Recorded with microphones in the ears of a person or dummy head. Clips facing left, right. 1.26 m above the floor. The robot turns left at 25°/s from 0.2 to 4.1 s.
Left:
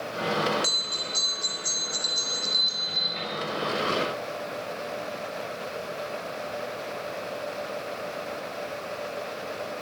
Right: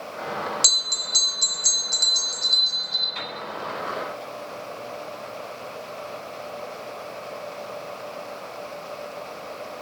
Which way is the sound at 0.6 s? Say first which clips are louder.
Left 3 dB; 35° right.